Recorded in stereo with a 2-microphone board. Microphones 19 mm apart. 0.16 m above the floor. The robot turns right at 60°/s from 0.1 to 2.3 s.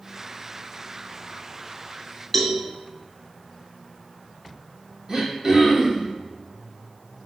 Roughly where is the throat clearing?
Right.